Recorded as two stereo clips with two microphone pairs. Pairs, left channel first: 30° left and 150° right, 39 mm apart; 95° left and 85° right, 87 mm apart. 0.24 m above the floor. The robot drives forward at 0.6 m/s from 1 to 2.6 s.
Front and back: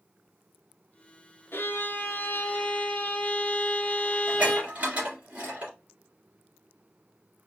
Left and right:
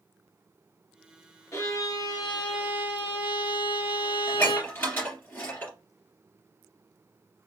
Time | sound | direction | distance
1.5 | a violin | 40° left | 0.9 m
4.3 | dishes clattering | 160° left | 2.5 m